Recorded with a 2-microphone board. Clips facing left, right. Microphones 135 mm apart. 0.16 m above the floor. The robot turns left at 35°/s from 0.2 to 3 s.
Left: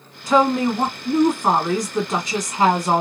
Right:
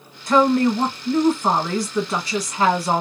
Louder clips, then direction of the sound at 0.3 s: Right 1 dB; 5° left (ahead or behind).